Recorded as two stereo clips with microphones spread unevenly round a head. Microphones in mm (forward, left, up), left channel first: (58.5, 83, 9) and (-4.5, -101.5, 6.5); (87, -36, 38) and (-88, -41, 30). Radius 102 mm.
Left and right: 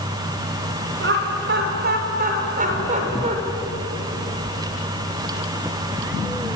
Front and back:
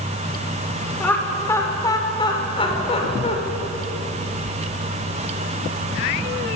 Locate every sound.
1.0 s laughter: 80° right, 6 m; by 3.4 s 50° right, 7 m